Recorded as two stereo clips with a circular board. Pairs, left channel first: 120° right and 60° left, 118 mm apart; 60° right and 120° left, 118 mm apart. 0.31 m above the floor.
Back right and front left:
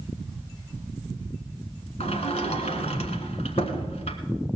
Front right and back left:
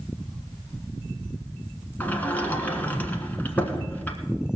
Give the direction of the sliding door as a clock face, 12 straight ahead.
4 o'clock.